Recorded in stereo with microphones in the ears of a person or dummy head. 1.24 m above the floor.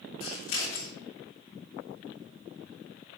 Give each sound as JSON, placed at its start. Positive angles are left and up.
{"t": 0.2, "sound": "scissors", "side_deg": 80, "distance_m": 3.5}